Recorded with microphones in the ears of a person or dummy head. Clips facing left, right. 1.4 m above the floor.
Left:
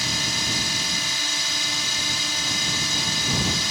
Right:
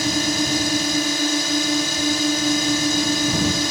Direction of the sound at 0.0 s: 50° right (ahead or behind).